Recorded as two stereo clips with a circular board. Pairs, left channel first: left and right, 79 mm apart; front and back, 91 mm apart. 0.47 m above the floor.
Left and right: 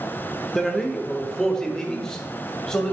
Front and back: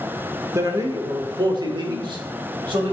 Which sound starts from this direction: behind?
A man speaking, at 0.6 s.